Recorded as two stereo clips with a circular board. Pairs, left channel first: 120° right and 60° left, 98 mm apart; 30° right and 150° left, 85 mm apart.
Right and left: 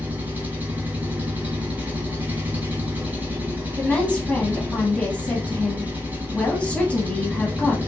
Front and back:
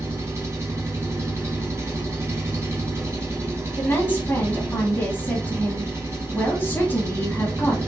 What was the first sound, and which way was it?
An engine running, 120° left.